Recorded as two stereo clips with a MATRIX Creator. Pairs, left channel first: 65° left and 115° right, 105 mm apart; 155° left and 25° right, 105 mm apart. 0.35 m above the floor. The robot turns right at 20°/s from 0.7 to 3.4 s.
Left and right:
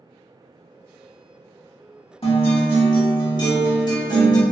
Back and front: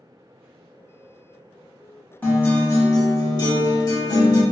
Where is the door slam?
No door slam in this recording.